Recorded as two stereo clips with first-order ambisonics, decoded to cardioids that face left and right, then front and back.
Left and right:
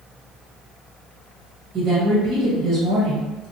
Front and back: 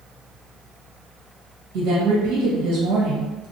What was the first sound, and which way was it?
A woman speaking, 155° right.